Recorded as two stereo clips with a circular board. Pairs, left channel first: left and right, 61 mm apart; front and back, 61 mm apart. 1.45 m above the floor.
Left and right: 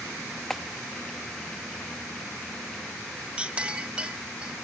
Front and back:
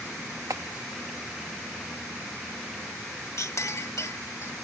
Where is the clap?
170° left.